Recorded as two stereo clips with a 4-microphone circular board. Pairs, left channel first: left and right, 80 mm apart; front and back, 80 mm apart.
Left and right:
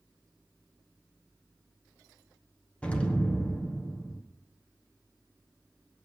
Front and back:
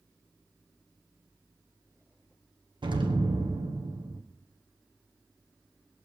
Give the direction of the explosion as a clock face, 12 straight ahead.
7 o'clock.